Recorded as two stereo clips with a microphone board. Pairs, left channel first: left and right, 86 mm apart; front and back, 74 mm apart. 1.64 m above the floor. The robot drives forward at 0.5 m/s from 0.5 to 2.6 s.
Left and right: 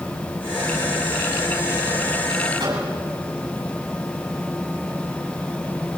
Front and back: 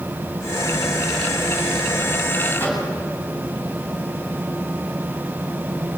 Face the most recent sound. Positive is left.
turn(degrees=-60)